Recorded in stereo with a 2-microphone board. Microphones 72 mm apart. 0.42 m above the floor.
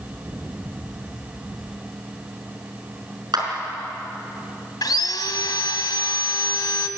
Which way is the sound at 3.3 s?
75° right (ahead or behind).